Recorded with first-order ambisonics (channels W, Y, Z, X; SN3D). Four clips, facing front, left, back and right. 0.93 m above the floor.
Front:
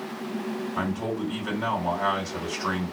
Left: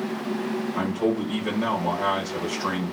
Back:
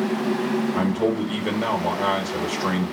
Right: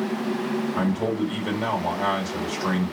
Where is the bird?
No bird in this recording.